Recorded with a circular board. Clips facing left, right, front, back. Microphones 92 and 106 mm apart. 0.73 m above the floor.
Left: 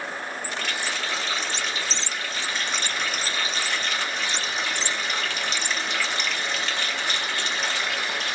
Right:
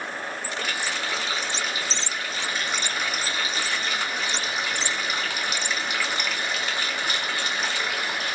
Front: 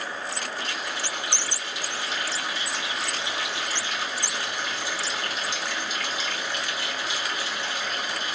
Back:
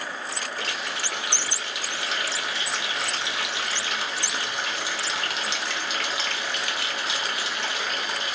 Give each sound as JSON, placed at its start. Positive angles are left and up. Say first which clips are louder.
{"t": 0.6, "sound": "a running tap", "louder": "right 1 dB, even", "azimuth_deg": -170, "distance_m": 1.0}